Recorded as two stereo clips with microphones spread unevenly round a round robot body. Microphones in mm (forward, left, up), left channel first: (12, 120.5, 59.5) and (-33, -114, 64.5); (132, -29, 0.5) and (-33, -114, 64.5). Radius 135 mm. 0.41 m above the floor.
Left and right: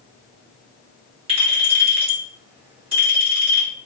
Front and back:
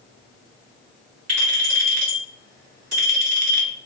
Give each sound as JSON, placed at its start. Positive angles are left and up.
{"t": 1.3, "sound": "a clink", "azimuth_deg": -170, "distance_m": 1.9}